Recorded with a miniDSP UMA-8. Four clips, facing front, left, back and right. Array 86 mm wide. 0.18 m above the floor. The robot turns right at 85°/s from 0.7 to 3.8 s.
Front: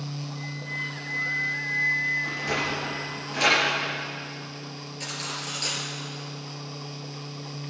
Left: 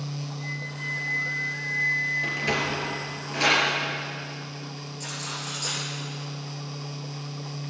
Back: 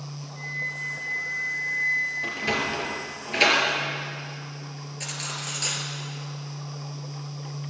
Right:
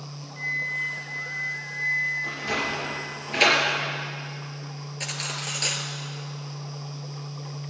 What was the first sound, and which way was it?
A flute, 90° right.